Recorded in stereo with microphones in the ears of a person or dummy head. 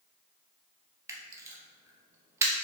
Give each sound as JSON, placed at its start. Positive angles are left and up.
{"t": 1.1, "sound": "a camera shutter", "side_deg": -20, "distance_m": 0.6}